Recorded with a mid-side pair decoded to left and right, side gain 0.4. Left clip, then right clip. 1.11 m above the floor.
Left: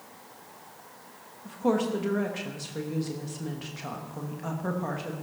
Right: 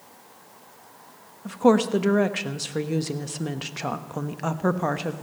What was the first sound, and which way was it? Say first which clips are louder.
A woman speaking: right 7 dB; 65° right.